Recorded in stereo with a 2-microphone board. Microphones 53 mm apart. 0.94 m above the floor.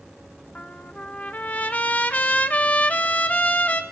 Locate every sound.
0.6 s a trumpet: 25° left (ahead or behind), 0.9 m